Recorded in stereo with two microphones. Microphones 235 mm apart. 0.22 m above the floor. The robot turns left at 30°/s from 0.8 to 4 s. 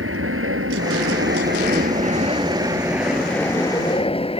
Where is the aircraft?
110° right; by 4.4 s 155° left.